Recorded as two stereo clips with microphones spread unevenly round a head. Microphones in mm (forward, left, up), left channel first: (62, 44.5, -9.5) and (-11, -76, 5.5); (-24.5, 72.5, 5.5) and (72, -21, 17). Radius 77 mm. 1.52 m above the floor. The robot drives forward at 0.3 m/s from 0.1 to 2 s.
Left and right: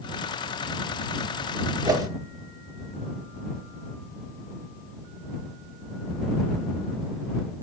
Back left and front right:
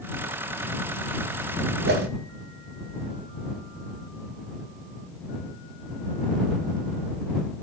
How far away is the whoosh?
About 1.1 m.